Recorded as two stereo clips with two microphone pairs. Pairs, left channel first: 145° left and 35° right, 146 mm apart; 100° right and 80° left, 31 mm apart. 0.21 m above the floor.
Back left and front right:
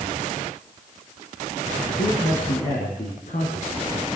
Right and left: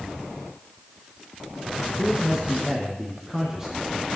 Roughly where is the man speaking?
Behind left.